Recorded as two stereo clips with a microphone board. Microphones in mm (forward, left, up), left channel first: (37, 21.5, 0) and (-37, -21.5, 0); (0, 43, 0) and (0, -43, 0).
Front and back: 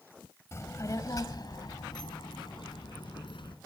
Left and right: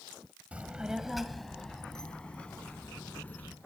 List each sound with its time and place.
0.5 s a child speaking: 20° right, 1.3 m; by 3.5 s 20° left, 3 m